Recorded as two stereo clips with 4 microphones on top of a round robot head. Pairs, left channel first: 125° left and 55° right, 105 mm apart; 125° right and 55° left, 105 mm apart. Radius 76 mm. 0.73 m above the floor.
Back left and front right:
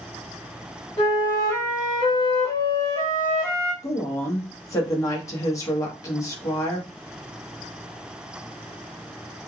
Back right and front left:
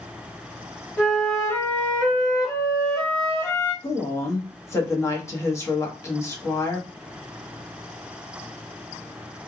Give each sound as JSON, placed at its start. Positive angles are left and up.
{"t": 1.0, "sound": "a flute", "azimuth_deg": 170, "distance_m": 1.7}
{"t": 3.8, "sound": "a woman speaking", "azimuth_deg": 180, "distance_m": 1.1}